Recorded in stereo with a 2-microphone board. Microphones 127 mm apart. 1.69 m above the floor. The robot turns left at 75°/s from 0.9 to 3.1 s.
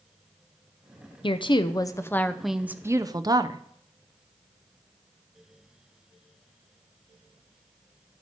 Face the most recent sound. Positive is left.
turn(degrees=-50)